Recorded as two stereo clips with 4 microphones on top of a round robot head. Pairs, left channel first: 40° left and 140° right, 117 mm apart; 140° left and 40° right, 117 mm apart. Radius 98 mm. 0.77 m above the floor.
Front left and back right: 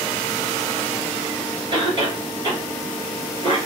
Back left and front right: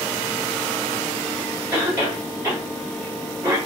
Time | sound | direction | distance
1.7 | a cough | 110° right | 1.6 m